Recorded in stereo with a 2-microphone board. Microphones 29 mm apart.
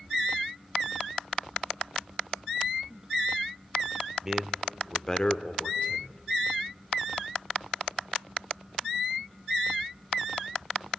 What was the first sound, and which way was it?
A man speaking, 20° right (ahead or behind).